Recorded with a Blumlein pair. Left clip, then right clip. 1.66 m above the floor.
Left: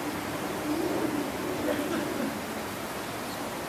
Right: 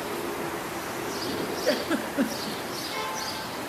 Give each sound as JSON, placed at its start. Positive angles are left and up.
{"t": 1.6, "sound": "a giggle", "azimuth_deg": -60, "distance_m": 2.5}